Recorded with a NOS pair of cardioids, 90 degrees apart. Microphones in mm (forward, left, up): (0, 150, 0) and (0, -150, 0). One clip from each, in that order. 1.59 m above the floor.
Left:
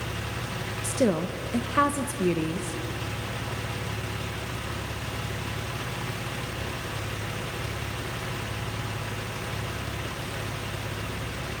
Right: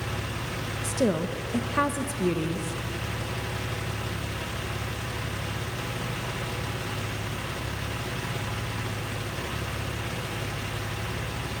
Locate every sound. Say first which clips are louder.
0.8 s a woman speaking: left 1 dB; 10° left, 1.5 m